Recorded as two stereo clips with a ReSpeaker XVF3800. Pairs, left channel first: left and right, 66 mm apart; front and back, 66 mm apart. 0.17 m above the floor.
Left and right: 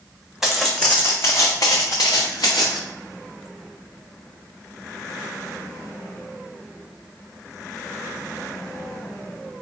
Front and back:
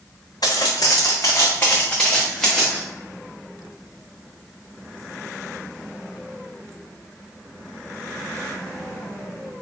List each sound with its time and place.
0.4 s footsteps: 5° right, 0.8 m; by 2.8 s 90° left, 1.4 m